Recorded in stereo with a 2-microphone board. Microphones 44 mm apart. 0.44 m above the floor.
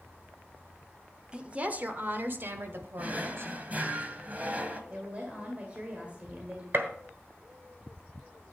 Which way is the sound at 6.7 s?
55° right (ahead or behind).